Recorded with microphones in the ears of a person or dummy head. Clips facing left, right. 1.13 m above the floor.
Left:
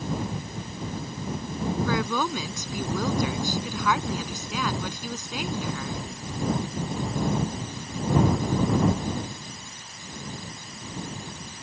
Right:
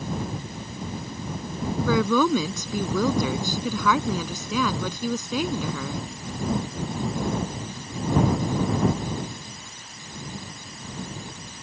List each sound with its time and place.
1.9 s a woman speaking: 70° right (ahead or behind)